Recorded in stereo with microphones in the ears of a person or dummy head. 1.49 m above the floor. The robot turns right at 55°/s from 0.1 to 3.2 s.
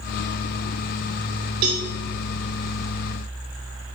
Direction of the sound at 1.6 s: 30° right (ahead or behind).